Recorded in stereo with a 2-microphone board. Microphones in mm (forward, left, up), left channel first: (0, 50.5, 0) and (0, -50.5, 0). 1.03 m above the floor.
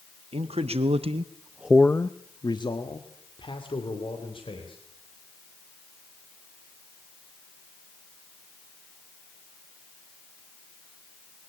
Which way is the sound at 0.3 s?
80° right.